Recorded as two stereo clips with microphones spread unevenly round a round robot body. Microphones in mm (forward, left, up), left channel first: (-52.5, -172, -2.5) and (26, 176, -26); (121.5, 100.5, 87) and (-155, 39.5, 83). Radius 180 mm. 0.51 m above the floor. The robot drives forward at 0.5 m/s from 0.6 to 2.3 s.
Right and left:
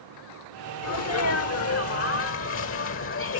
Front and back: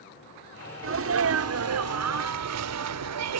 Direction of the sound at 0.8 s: 145° right.